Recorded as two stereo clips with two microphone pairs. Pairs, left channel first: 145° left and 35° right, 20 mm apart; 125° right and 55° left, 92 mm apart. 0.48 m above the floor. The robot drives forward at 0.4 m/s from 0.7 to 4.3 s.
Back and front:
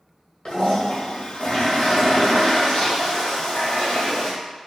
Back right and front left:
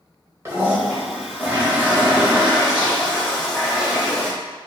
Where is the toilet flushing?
110° left, 1.6 m; by 4.3 s 145° left, 2.5 m.